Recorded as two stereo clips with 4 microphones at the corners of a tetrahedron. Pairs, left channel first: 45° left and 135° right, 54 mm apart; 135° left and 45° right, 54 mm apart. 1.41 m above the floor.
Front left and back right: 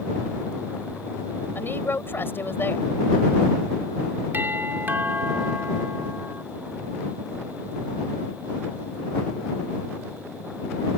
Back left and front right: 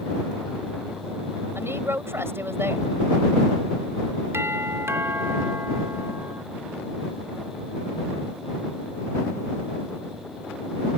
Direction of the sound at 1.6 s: 5° right.